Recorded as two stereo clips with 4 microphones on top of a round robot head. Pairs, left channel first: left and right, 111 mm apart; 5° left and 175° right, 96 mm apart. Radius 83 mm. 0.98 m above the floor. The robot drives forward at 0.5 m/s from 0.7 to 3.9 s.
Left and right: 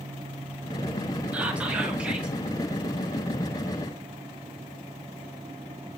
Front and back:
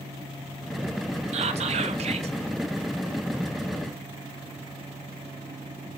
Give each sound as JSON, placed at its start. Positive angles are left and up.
{"t": 1.3, "sound": "whispering", "azimuth_deg": -170, "distance_m": 1.4}